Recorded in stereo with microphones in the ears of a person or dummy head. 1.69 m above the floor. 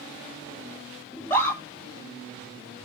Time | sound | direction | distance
1.1 | a scream | 10° left (ahead or behind) | 4 m